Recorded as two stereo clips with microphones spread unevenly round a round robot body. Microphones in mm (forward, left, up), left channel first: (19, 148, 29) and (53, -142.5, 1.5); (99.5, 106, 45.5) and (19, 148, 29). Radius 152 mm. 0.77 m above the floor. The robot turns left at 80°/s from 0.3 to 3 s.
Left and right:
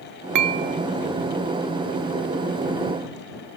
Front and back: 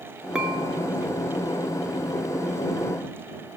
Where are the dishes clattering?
120° right; by 0.9 s 160° right.